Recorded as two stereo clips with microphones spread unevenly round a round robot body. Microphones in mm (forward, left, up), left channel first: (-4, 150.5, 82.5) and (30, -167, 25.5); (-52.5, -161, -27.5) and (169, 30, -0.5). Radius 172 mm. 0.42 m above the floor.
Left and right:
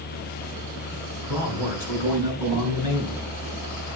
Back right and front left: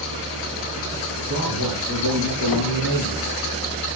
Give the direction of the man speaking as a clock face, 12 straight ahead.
9 o'clock.